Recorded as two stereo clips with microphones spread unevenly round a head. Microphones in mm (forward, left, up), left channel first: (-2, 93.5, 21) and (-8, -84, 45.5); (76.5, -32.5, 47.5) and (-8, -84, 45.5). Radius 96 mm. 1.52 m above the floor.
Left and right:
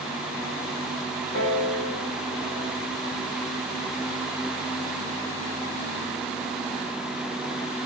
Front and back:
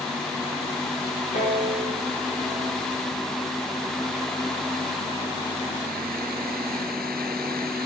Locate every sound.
1.3 s a piano: 55° left, 3.5 m